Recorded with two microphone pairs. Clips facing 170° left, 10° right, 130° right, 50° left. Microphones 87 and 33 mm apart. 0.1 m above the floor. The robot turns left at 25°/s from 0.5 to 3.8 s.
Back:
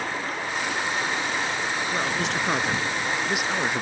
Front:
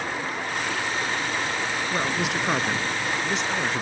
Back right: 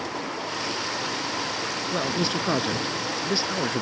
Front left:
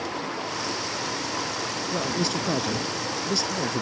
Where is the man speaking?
80° right; by 3.8 s 130° right.